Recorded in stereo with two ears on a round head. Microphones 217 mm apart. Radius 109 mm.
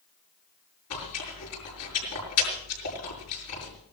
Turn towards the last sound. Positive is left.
turn(degrees=70)  # may be behind; listen again after turning